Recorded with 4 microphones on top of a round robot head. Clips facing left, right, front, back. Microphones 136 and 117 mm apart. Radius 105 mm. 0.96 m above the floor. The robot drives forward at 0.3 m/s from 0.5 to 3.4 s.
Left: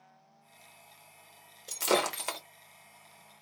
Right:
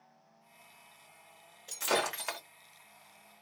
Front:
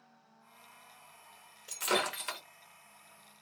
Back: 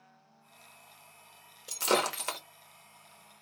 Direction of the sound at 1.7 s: 130° left.